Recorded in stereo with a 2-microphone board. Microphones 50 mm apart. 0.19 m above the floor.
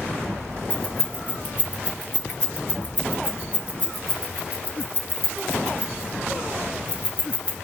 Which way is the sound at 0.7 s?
30° right (ahead or behind).